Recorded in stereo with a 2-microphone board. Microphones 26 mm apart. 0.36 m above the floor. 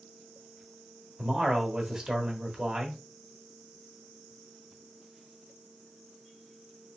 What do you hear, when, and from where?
1.2 s a man speaking: 30° right (ahead or behind), 1.0 m